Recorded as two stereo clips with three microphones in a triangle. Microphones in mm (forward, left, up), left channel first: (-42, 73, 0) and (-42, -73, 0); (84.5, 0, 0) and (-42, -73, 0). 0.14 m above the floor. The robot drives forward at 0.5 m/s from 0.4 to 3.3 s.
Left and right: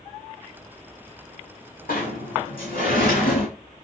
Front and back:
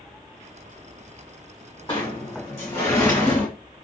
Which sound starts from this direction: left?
A sliding door, at 1.9 s.